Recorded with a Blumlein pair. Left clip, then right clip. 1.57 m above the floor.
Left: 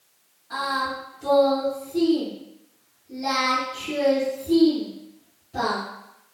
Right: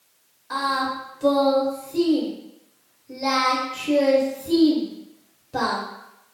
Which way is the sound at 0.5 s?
60° right.